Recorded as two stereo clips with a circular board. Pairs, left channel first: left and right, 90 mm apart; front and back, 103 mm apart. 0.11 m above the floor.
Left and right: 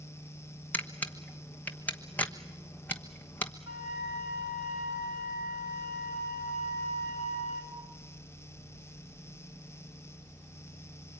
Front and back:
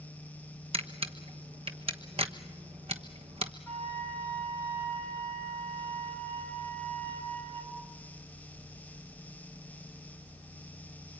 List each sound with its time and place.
0.7 s a camera shutter: 160° left, 1.1 m
3.7 s a flute: 70° right, 4.5 m